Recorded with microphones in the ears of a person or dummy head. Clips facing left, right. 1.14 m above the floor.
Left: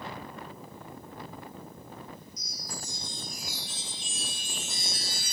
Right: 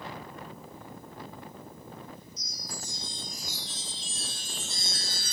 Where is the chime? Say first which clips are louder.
Even; 10° left (ahead or behind), 1.1 m.